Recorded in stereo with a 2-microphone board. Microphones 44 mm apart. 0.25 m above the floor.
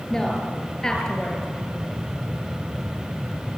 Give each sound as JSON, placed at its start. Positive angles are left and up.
{"t": 0.1, "sound": "a woman speaking", "side_deg": 15, "distance_m": 4.5}